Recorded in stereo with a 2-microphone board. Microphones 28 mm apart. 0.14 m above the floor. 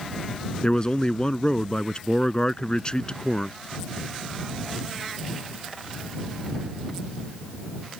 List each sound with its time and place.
0.6 s a man speaking: 35° left (ahead or behind)